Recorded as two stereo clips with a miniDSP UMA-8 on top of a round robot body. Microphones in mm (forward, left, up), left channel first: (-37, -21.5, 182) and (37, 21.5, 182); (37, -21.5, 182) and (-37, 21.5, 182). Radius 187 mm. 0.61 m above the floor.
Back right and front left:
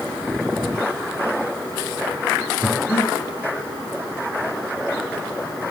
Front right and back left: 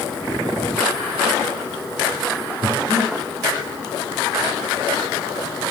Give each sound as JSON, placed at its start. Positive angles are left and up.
{"t": 2.6, "sound": "breathing", "azimuth_deg": 150, "distance_m": 2.0}